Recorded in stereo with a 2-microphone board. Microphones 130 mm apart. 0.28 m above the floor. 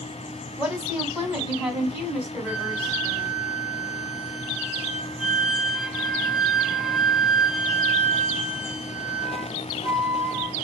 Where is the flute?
5° right (ahead or behind), 0.7 m.